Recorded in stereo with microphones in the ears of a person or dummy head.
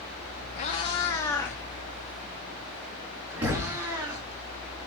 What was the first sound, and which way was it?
A cat meowing, 30° left (ahead or behind).